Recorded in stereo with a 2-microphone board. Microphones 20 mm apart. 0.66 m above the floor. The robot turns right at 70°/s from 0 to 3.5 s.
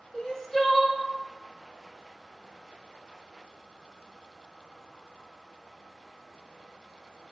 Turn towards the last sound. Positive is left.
turn(degrees=15)